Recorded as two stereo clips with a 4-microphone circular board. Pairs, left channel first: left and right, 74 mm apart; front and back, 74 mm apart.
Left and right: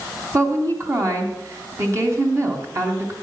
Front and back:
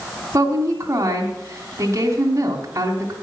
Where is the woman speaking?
135° right, 3 m.